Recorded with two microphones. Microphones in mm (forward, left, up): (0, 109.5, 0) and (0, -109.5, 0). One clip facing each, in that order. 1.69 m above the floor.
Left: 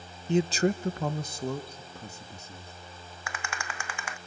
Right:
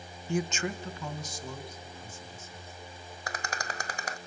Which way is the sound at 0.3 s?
20° left (ahead or behind).